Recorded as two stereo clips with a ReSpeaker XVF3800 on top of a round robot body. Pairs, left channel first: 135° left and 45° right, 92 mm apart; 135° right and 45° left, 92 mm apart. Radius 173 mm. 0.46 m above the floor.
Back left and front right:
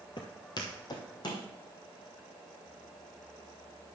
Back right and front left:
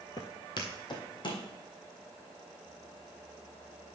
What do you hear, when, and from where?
0.2 s footsteps: 175° left, 0.7 m; by 1.4 s 175° right, 1.9 m